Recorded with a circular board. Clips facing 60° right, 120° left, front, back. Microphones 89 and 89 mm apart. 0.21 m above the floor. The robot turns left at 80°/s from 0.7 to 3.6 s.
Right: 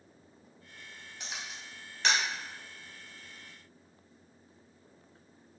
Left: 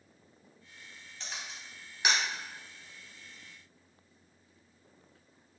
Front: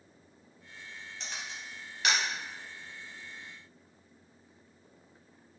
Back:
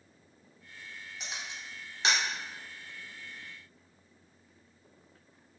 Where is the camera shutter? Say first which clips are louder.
Right 1 dB, even; 115° right, 0.8 m; by 2.2 s 165° left, 0.8 m.